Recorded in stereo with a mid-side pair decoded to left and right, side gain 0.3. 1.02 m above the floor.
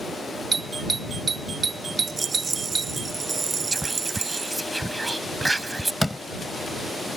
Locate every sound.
0.5 s a doorbell: 50° right
2.1 s a rattle: 50° right
3.7 s whispering: 20° right
6.0 s a door slam: 10° left